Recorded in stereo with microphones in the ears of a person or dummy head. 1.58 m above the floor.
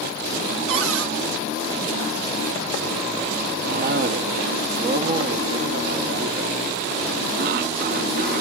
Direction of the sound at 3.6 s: 45° right (ahead or behind).